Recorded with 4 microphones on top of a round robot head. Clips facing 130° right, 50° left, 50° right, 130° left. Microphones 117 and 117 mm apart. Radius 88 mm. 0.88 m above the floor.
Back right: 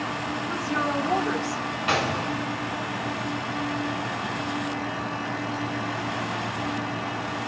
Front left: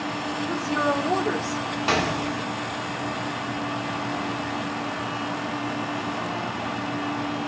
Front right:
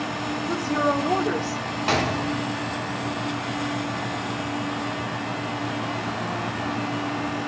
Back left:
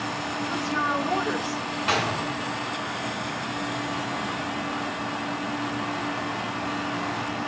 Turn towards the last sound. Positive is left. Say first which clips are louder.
# front left 1 dB, front right 3 dB
turn(degrees=0)